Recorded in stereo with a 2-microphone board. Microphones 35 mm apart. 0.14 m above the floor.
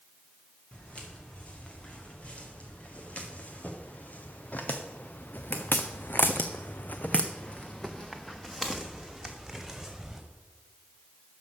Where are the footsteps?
35° left (ahead or behind), 3.5 m; by 10.2 s 5° right (ahead or behind), 2.5 m.